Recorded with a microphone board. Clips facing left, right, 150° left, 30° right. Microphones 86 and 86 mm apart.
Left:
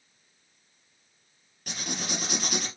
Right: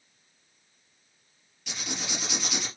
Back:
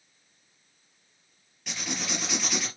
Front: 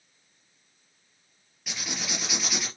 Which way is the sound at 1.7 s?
55° left.